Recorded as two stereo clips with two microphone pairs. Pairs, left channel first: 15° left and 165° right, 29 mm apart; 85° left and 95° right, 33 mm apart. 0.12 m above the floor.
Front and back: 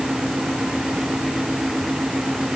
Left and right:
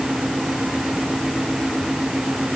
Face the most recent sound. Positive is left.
No sound to turn to.